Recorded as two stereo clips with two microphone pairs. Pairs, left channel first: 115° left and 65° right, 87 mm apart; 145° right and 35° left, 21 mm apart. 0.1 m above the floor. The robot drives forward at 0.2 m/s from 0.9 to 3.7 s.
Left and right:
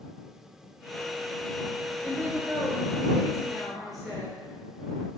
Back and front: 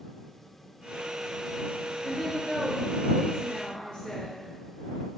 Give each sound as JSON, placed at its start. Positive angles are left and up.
{"t": 2.0, "sound": "a woman speaking", "azimuth_deg": -135, "distance_m": 1.2}